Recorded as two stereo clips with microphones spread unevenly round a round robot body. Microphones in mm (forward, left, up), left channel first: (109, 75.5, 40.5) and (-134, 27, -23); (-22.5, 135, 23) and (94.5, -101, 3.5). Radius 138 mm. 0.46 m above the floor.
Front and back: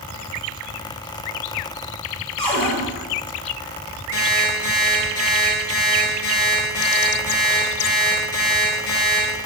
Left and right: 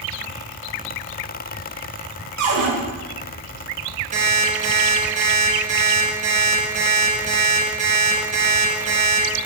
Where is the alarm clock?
Straight ahead, 3.5 m.